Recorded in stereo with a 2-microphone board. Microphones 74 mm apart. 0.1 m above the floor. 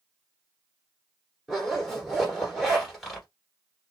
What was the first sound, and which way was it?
A zipper, centre (ahead or behind).